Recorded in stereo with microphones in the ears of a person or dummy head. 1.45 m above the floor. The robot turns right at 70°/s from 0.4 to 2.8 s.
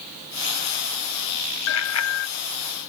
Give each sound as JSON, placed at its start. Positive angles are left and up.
{"t": 1.7, "sound": "a bicycle bell", "azimuth_deg": 70}